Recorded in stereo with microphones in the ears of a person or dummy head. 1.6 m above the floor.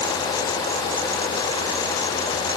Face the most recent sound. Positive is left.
No sound to turn to.